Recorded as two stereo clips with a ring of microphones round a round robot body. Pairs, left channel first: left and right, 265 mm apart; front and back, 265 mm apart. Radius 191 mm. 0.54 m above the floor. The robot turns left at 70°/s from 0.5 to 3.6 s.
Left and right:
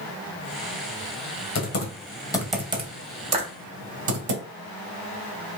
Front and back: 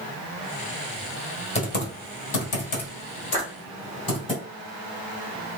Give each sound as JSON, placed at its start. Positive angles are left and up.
{"t": 1.6, "sound": "typing on a keyboard", "azimuth_deg": 65, "distance_m": 1.7}
{"t": 3.3, "sound": "a clap", "azimuth_deg": -20, "distance_m": 3.0}